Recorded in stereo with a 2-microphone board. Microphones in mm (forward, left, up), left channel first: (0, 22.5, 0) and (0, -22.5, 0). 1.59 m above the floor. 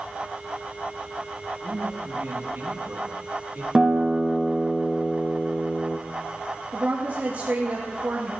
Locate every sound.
1.6 s a man speaking: 75° right (ahead or behind), 3 m; by 3.6 s 45° right (ahead or behind), 3.5 m
3.8 s a guitar: 15° right (ahead or behind), 1.2 m
6.7 s a woman speaking: 60° right (ahead or behind), 2.5 m